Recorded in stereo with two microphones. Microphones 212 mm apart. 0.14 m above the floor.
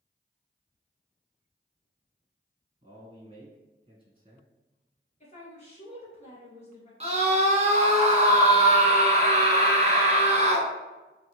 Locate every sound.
2.8 s a man speaking: 30° right (ahead or behind), 1.6 m
5.2 s a woman speaking: 35° left (ahead or behind), 1.9 m
7.0 s a scream: 30° right (ahead or behind), 1.2 m